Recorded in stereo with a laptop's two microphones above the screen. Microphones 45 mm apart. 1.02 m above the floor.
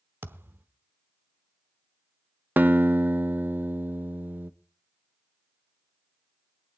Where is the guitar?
45° right (ahead or behind), 0.5 m.